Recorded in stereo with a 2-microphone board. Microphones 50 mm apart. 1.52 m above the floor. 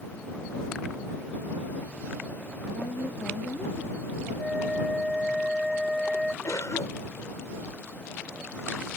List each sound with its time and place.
2.7 s a woman speaking: 50° left (ahead or behind); by 4.3 s 30° left (ahead or behind)
4.4 s a flute: 5° right (ahead or behind)
6.4 s a cough: 85° left